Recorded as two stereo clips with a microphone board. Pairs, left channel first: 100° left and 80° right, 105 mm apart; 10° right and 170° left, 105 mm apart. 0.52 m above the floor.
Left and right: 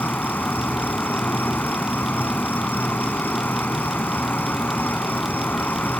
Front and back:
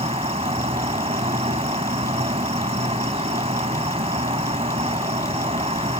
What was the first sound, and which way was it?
An insect, 170° left.